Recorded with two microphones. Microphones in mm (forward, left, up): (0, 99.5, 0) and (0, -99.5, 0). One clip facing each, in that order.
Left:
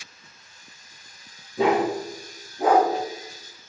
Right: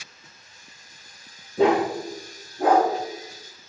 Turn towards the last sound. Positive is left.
turn(degrees=30)  # may be behind; listen again after turning